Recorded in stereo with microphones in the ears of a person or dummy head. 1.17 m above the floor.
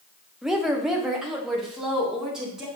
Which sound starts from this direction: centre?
A woman speaking, at 0.4 s.